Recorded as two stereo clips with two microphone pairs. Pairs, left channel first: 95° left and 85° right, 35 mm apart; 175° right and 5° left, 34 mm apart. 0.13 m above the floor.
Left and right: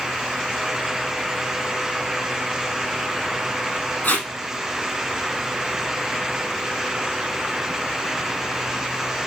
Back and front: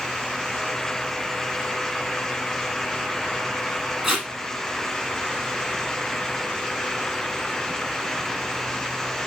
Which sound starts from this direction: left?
Tape being pulled, at 4.0 s.